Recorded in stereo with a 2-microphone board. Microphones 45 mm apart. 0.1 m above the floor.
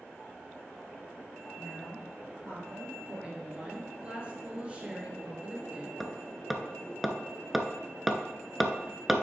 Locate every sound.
1.6 s a woman speaking: 55° right (ahead or behind), 2.5 m
3.1 s a woman speaking: 25° right (ahead or behind), 2 m
6.0 s hammering: centre (ahead or behind), 0.7 m